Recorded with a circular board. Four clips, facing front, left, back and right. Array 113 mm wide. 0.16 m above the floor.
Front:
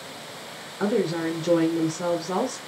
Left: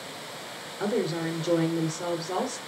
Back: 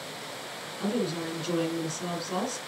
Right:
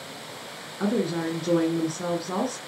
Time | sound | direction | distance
0.8 | a woman speaking | 25° right | 1.8 m